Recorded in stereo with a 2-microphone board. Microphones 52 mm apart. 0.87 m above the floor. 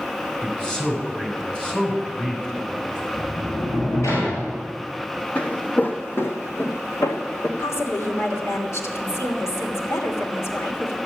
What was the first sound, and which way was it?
A man speaking, 15° left (ahead or behind).